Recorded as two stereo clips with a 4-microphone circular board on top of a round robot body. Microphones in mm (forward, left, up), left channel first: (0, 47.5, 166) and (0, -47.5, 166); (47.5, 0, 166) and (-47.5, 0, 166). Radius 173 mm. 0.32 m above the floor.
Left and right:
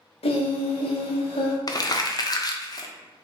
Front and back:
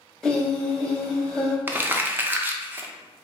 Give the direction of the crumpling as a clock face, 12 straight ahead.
8 o'clock.